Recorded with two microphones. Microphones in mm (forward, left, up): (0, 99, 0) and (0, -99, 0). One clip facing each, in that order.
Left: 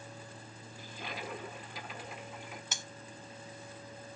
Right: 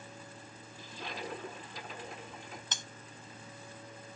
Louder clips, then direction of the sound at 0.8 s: Right 1 dB; 5° left (ahead or behind).